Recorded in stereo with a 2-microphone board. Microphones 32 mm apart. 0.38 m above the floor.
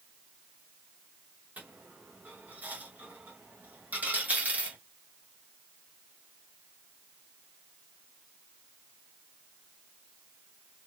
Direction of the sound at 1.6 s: 60° right (ahead or behind).